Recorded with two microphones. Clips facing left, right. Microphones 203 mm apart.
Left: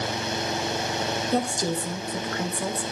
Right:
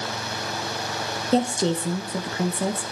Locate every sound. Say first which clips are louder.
1.3 s a woman speaking: right 6 dB; 25° right (ahead or behind), 1.2 m